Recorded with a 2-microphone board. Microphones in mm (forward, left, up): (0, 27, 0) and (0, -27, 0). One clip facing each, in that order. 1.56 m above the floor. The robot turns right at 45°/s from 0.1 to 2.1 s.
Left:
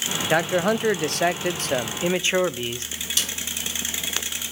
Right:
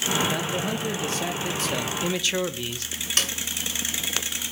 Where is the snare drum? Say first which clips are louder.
Right 3 dB; 50° right (ahead or behind), 1.9 m.